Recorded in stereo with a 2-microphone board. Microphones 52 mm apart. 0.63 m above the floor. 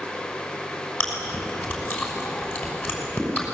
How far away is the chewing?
About 6 m.